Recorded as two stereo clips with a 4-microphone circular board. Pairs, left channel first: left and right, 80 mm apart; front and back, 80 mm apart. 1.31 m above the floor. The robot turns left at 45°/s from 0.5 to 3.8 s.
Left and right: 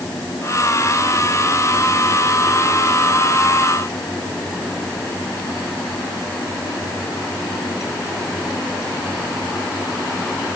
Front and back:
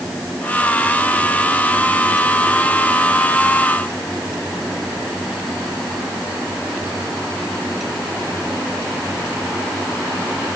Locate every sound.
Only background noise.